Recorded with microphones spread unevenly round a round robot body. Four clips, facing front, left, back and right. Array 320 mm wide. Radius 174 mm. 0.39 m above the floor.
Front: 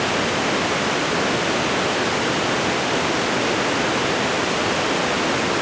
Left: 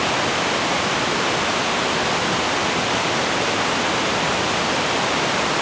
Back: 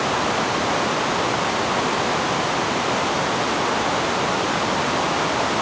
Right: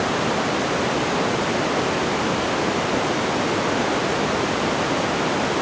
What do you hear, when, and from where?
Only background noise.